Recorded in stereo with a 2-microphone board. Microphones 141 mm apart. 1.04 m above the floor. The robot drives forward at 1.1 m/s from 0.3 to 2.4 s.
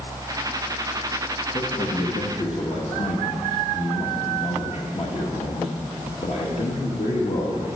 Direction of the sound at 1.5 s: 65° left (ahead or behind).